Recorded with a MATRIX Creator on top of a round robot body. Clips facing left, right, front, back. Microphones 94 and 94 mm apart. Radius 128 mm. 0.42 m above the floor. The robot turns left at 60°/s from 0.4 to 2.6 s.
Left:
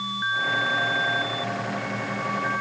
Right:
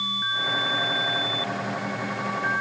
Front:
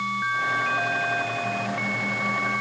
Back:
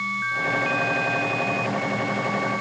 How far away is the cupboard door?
I don't hear a cupboard door.